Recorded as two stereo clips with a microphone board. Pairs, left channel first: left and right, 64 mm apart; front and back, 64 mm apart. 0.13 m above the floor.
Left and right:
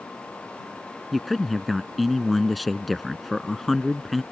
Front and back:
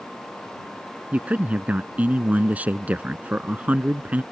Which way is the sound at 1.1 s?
Straight behind.